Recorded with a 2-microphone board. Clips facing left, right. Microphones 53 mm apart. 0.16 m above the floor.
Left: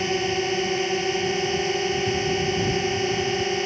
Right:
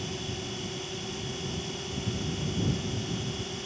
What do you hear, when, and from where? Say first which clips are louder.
0.0 s a drone: left 13 dB; 65° left (ahead or behind)